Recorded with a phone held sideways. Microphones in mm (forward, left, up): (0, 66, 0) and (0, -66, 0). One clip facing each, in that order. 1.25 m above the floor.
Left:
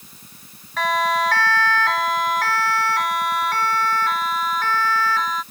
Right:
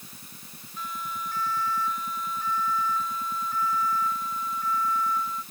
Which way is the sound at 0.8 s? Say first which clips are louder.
Left 16 dB; 90° left.